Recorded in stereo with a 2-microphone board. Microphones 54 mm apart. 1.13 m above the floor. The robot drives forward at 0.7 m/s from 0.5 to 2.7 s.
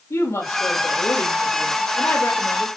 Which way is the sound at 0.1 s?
70° left (ahead or behind).